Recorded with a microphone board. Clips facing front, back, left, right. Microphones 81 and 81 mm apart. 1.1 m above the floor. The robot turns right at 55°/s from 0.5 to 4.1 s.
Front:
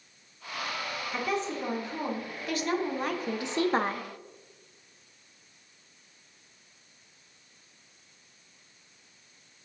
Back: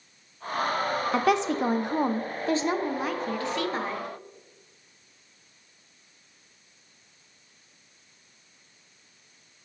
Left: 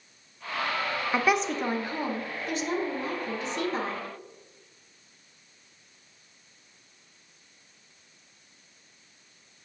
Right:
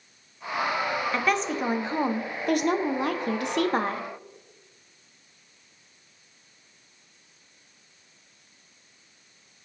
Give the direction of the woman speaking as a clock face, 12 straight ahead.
7 o'clock.